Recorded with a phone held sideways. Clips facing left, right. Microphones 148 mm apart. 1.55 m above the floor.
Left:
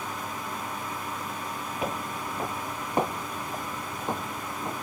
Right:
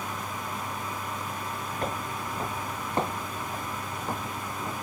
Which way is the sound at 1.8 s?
5° left (ahead or behind).